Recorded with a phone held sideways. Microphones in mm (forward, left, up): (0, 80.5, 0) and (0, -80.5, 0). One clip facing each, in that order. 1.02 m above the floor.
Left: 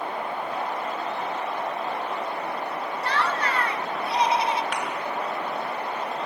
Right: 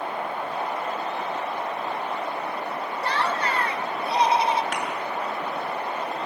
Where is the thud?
45° right (ahead or behind), 7.5 m.